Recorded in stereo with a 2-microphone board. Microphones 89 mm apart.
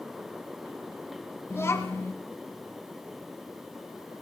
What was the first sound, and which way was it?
A child speaking, 30° left (ahead or behind).